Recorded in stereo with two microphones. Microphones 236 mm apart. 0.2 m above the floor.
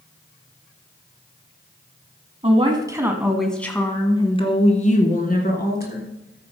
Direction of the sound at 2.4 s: 25° right (ahead or behind).